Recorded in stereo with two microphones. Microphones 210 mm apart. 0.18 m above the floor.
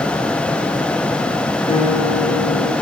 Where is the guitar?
30° left (ahead or behind), 3.5 m.